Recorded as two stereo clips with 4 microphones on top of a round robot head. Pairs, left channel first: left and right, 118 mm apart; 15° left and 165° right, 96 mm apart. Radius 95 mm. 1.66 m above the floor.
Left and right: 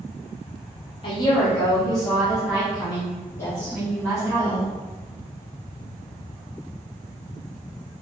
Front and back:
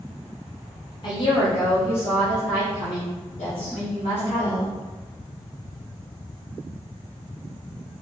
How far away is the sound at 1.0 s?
About 1.0 m.